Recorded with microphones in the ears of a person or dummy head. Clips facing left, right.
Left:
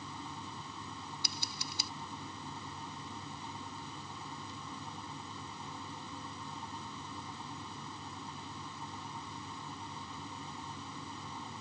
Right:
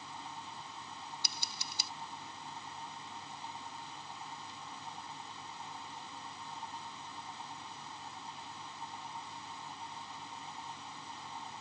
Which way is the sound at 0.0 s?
85° left.